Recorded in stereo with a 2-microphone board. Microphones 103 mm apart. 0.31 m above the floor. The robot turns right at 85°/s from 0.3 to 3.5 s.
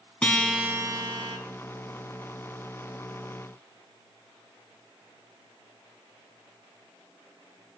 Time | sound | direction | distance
0.2 | a guitar | 170° left | 1.9 m